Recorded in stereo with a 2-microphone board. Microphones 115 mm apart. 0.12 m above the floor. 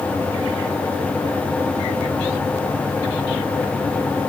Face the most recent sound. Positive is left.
No sound to turn to.